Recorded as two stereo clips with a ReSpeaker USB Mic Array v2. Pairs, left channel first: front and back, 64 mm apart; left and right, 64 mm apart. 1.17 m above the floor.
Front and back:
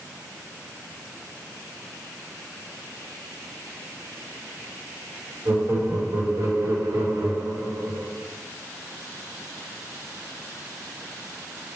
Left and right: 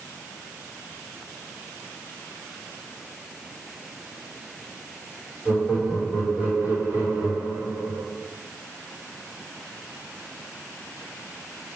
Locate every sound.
5.5 s laughter: 155° right, 3.5 m; by 8.1 s 140° right, 2.0 m